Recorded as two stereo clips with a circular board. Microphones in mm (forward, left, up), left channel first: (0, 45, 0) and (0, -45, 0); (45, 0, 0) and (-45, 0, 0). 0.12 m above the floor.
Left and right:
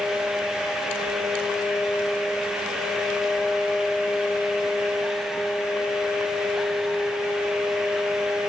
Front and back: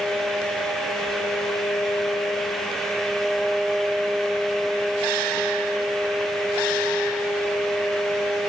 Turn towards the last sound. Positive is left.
No sound to turn to.